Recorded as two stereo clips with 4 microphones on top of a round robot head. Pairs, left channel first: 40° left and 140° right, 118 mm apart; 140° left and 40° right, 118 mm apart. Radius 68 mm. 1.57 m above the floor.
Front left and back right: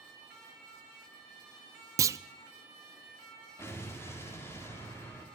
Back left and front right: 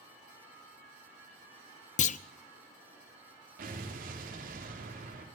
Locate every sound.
2.0 s a clunk: 155° left, 0.8 m
3.6 s an explosion: 30° right, 4.5 m